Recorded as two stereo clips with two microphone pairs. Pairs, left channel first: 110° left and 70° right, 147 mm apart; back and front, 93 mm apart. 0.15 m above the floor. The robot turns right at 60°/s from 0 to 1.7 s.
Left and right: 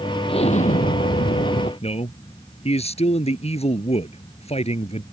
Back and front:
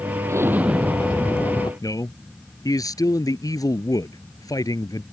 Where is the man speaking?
140° left.